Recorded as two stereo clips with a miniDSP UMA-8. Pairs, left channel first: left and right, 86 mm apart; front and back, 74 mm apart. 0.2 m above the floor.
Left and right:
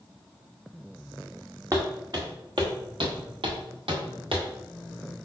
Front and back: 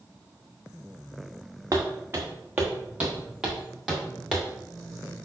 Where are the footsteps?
135° right, 1.1 m; by 4.5 s 90° right, 2.0 m.